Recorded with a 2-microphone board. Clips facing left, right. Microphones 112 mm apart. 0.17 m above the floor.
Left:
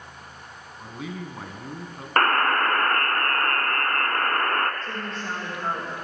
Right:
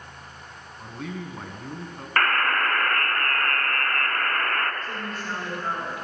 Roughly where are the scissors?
No scissors in this recording.